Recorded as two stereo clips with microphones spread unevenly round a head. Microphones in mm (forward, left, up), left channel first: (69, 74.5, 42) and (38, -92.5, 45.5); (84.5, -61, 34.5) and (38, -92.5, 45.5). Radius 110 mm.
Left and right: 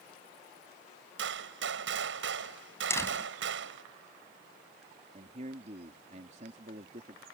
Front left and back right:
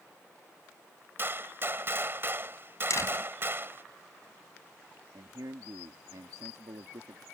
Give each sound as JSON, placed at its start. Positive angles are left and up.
{"t": 1.2, "sound": "a gunshot", "azimuth_deg": -100}
{"t": 2.9, "sound": "a door slam", "azimuth_deg": 5}
{"t": 5.1, "sound": "a man speaking", "azimuth_deg": -155}